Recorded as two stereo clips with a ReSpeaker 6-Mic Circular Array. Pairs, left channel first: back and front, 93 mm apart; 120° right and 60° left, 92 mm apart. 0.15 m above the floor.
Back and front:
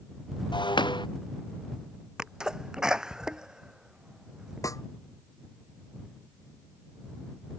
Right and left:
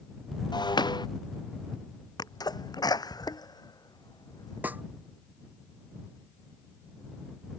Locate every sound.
0.5 s breaking glass: 155° right
2.2 s a sneeze: 80° right
4.6 s a snare drum: 130° left